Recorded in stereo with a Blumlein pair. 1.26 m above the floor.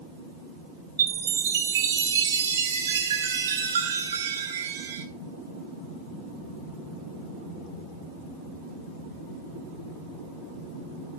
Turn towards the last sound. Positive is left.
turn(degrees=-65)